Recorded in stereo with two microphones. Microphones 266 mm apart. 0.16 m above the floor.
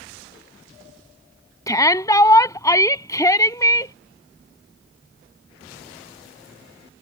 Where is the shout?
10° left (ahead or behind).